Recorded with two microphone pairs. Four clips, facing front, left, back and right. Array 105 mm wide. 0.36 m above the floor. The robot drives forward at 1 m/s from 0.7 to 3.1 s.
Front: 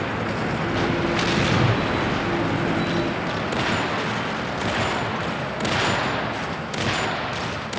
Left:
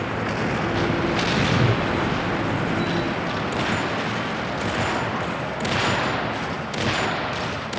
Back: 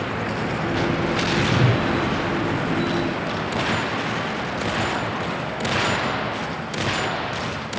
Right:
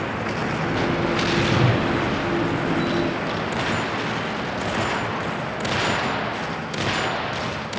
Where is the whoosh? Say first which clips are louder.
Right 1 dB, back 1 dB; 75° right, 1.9 m; by 1.9 s 95° right, 1.9 m.